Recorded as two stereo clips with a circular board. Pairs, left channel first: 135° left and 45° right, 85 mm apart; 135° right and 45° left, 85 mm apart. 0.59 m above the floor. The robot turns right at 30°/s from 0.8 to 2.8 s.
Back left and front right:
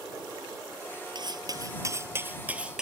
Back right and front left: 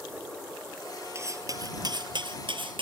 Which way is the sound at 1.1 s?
10° right.